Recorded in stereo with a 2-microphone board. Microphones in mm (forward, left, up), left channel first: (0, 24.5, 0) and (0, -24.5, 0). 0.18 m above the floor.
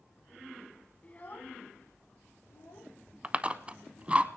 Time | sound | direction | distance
1.0 | a child speaking | 25° left (ahead or behind) | 0.8 m
3.2 | chewing | 25° right (ahead or behind) | 0.5 m